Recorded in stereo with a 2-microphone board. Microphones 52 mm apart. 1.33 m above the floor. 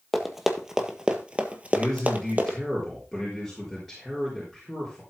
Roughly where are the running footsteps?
Centre.